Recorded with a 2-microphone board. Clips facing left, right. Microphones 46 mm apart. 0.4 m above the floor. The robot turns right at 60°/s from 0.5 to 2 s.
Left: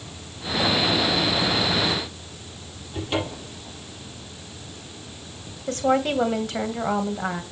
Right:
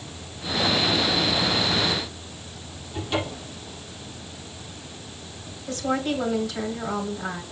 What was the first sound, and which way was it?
A cupboard door, 25° left (ahead or behind).